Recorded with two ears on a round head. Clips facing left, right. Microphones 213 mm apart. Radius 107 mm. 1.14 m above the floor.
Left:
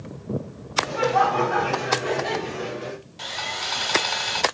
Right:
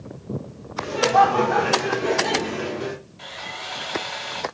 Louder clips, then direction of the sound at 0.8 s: Right 3 dB; 40° right (ahead or behind).